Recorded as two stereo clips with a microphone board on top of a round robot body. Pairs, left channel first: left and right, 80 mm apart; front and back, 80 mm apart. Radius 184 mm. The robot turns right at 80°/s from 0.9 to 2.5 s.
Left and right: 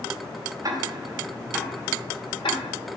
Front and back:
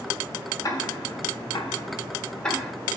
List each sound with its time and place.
0.6 s ticking: 45° right, 2.5 m; by 2.7 s 85° left, 2.5 m